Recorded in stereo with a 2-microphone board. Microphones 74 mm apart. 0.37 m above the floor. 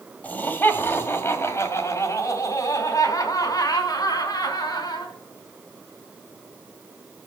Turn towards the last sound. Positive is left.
turn(degrees=65)  # may be behind; listen again after turning